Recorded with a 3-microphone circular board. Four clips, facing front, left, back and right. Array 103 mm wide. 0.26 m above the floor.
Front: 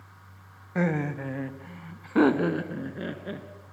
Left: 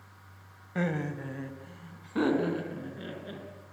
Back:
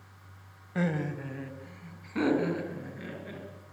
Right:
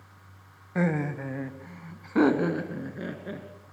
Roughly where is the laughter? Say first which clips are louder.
Right 4 dB, front 4 dB; ahead right.